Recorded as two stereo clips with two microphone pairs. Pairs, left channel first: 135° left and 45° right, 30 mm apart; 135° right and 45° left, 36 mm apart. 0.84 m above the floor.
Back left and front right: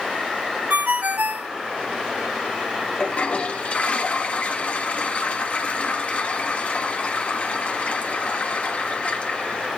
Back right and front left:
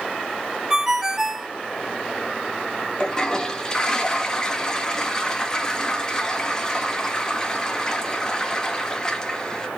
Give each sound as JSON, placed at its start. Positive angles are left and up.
{"t": 0.7, "sound": "a ringtone", "azimuth_deg": -30, "distance_m": 0.5}
{"t": 3.0, "sound": "a toilet flushing", "azimuth_deg": 160, "distance_m": 1.1}